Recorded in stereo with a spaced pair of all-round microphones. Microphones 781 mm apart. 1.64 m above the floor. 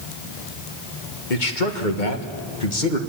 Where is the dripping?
I don't hear dripping.